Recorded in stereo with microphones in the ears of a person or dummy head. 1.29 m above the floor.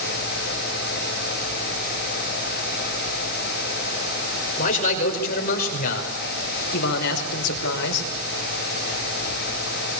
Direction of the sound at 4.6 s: 45° left (ahead or behind).